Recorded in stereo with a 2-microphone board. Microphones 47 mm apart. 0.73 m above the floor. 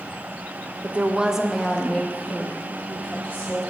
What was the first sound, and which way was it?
A woman speaking, 30° right (ahead or behind).